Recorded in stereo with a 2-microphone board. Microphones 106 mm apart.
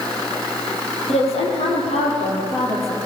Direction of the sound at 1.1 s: 75° left (ahead or behind).